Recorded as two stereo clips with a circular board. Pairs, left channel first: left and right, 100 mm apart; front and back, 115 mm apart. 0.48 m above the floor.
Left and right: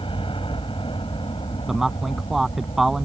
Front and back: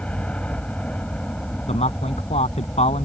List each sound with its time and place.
0.0 s a helicopter: 80° left
1.7 s a man speaking: straight ahead